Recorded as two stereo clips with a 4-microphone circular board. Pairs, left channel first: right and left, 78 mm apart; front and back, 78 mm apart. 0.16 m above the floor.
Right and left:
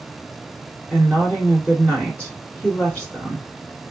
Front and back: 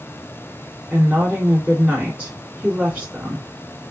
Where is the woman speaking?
130° right, 1.8 m.